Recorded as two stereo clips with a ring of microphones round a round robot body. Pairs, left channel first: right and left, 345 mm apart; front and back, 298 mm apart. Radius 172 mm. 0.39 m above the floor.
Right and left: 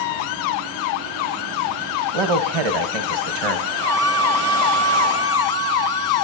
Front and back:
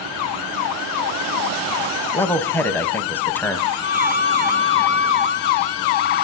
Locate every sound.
2.1 s a man speaking: 85° left, 2 m
3.8 s a violin: 60° left, 10 m